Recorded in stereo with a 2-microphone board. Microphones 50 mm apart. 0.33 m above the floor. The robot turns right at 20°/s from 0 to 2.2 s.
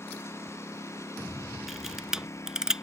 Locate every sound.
0.0 s a lawn mower: 60° left; by 2.8 s 100° left
1.7 s a camera shutter: centre (ahead or behind); by 2.8 s 10° right (ahead or behind)